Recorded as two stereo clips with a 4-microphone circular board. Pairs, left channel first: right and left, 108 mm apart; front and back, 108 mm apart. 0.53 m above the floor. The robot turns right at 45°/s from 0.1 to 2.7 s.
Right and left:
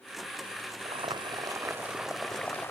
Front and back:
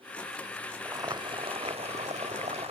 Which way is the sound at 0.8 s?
120° left.